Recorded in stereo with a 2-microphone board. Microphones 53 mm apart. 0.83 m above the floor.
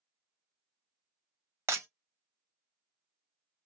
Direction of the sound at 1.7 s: 60° right (ahead or behind).